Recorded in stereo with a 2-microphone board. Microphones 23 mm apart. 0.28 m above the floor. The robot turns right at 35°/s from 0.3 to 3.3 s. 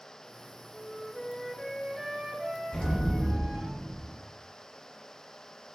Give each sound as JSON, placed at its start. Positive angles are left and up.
{"t": 0.7, "sound": "a flute", "azimuth_deg": 140, "distance_m": 0.7}
{"t": 2.7, "sound": "an explosion", "side_deg": 55, "distance_m": 1.8}